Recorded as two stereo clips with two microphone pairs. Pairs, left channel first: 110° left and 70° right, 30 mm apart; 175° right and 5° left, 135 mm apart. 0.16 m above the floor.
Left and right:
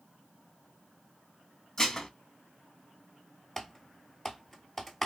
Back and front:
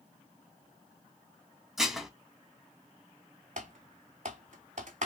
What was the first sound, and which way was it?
Dishes clattering, 95° left.